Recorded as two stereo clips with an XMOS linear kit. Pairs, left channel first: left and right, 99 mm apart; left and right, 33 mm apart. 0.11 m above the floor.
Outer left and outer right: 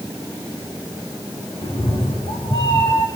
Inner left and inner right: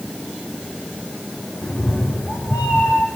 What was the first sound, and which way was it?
A cat meowing, 60° left (ahead or behind).